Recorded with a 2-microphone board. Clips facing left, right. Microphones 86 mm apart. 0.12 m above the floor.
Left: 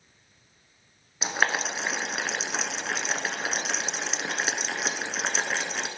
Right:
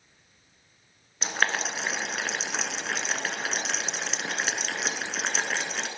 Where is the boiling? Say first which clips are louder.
Left 1 dB; 10° left (ahead or behind), 1.0 m.